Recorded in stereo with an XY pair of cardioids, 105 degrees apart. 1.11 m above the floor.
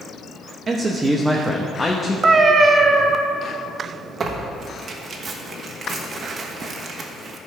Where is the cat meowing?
35° right, 0.8 m.